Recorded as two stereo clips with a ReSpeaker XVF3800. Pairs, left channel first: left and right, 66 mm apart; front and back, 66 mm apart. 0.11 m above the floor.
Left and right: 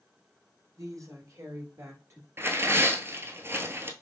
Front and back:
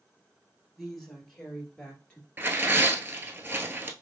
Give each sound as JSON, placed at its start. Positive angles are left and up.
{"t": 0.8, "sound": "a woman speaking", "azimuth_deg": -90, "distance_m": 2.5}
{"t": 2.4, "sound": "tearing paper", "azimuth_deg": -130, "distance_m": 0.8}